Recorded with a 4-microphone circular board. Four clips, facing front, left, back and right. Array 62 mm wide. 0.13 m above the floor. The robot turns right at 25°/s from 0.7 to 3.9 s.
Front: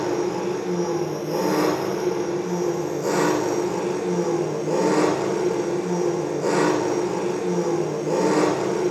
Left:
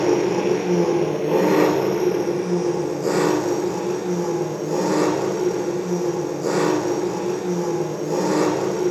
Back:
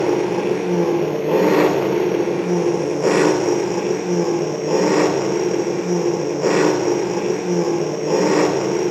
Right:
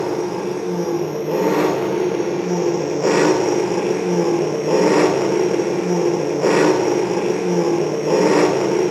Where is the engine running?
160° left, 1.7 m; by 8.9 s 120° right, 1.7 m.